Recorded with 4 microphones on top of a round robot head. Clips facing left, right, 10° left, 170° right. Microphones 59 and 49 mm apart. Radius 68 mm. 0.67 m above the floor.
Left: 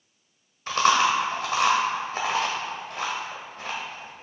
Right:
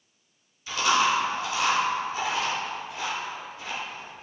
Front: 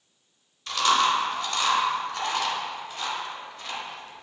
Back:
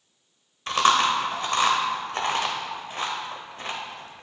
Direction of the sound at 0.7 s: 140° left.